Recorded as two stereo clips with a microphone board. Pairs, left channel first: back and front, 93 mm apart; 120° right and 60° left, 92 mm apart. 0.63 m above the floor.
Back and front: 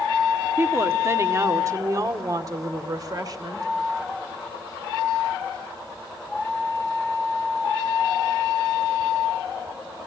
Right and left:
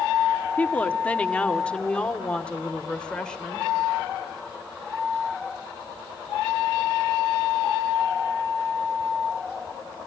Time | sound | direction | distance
0.6 | a woman speaking | 55° right | 1.5 m